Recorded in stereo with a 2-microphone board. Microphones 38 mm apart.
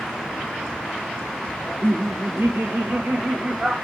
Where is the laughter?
60° right (ahead or behind), 1.9 m; by 3.7 s 35° right (ahead or behind), 1.1 m.